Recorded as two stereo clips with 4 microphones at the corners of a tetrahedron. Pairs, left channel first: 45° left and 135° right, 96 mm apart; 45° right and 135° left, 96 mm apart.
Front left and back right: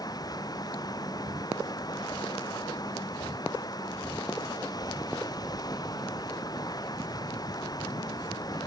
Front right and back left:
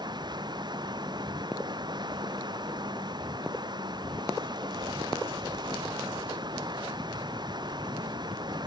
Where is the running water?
95° left.